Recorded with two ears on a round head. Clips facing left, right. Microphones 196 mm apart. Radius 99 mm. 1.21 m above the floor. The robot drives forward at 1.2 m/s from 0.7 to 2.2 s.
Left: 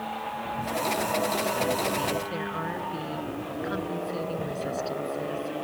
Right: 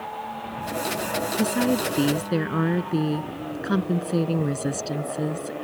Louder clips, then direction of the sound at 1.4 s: Right 5 dB; 75° right (ahead or behind).